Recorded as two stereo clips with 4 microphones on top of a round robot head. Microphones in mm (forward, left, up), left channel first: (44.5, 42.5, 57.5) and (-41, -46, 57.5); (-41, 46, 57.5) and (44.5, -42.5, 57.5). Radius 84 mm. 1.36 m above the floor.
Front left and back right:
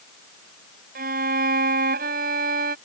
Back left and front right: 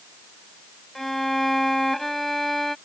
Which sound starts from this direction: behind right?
A violin, at 0.9 s.